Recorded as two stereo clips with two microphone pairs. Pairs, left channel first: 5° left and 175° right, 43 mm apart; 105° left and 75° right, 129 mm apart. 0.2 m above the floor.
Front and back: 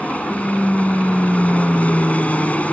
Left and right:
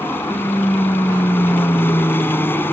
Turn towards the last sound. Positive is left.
turn(degrees=40)